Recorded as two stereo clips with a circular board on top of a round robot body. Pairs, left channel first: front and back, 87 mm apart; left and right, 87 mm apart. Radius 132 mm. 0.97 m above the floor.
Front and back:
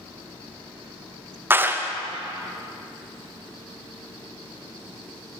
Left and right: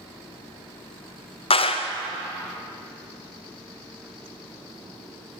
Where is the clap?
110° left, 0.6 m.